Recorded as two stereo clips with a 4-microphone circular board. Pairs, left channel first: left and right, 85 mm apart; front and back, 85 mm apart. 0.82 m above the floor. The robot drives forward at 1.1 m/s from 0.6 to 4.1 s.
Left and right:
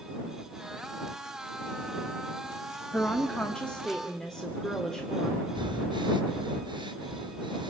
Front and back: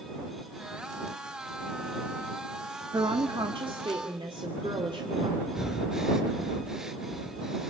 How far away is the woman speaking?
About 0.8 m.